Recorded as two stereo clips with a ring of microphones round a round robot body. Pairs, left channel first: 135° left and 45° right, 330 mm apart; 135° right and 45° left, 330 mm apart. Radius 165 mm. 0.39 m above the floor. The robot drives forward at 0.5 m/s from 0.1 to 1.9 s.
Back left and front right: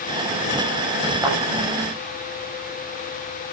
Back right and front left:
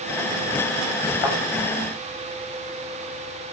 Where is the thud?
125° right, 8.5 m.